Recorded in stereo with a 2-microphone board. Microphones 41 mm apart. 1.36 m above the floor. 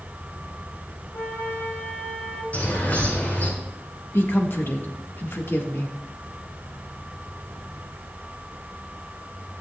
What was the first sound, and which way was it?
A flute, 70° left (ahead or behind).